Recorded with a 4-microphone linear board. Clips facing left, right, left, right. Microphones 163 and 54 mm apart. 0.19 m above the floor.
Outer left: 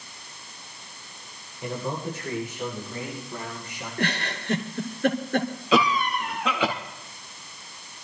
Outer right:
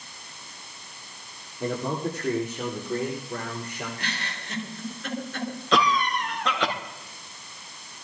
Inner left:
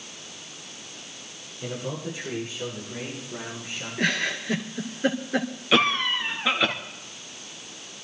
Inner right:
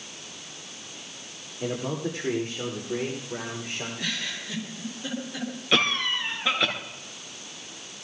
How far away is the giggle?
About 2.5 m.